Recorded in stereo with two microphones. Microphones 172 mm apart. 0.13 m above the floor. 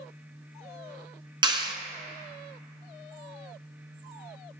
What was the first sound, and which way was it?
A clap, 30° right (ahead or behind).